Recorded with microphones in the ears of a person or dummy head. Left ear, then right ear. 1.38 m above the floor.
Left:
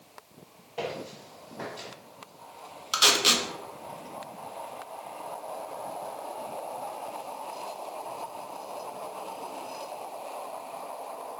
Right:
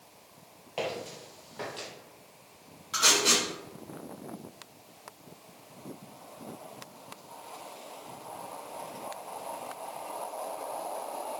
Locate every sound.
0.8 s footsteps: 30° right (ahead or behind), 1.6 m; by 1.9 s 20° right (ahead or behind), 1.6 m
2.9 s tape being pulled: 35° left (ahead or behind), 0.5 m